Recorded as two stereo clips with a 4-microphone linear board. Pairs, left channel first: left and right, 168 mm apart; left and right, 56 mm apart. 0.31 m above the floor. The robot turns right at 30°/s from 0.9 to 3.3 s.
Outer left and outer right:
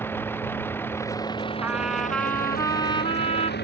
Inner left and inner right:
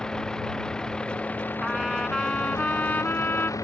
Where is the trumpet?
10° right; by 3.5 s 40° left.